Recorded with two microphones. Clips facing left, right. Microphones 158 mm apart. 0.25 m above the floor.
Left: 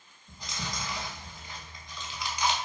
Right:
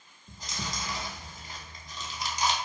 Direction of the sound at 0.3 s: 40° right (ahead or behind).